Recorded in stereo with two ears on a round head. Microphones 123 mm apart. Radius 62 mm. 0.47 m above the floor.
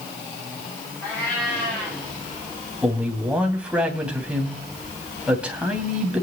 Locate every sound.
1.0 s a cat meowing: 10° left (ahead or behind), 7 m
2.8 s a man speaking: 10° right (ahead or behind), 3 m